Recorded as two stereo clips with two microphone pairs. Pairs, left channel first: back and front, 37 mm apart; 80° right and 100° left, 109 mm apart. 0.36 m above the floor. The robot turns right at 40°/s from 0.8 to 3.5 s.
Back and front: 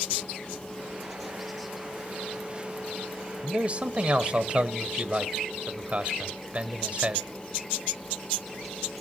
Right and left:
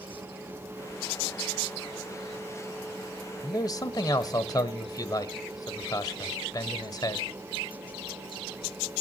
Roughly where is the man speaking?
Ahead right.